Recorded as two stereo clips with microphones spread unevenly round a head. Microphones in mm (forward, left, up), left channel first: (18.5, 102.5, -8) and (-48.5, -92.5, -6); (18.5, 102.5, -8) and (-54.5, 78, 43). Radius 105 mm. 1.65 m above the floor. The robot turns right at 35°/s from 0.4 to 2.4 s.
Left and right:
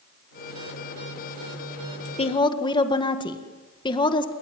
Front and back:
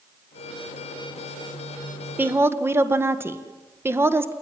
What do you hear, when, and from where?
2.2 s a woman speaking: 130° left, 1.9 m; by 4.3 s 140° left, 1.9 m